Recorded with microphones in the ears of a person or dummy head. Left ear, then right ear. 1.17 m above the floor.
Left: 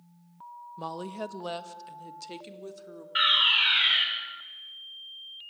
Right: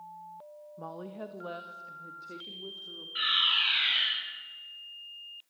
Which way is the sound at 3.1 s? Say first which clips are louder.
Left 4 dB; 60° left (ahead or behind).